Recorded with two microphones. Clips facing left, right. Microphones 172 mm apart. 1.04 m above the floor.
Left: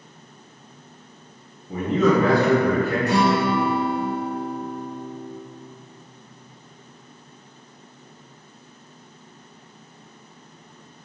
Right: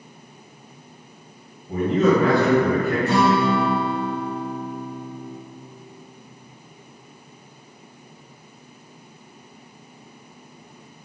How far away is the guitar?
About 0.8 m.